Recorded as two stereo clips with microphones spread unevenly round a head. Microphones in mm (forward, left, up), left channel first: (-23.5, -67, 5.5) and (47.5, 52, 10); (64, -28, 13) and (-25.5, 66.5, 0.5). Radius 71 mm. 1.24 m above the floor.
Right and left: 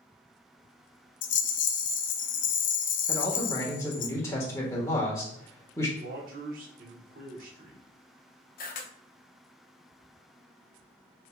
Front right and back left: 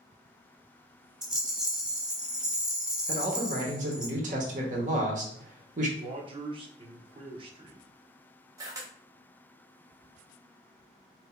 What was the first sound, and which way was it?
A rattle, 145° right.